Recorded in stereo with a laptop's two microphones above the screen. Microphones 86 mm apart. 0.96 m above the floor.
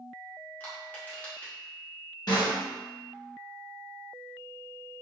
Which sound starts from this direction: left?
A snare drum, at 2.3 s.